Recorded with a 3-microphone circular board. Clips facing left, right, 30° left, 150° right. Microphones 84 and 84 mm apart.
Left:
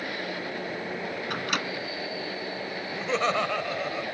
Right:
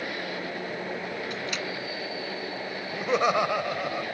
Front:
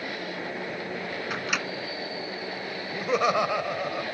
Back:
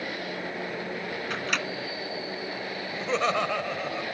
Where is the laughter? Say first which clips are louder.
Right 3 dB, front 3 dB; 30° right.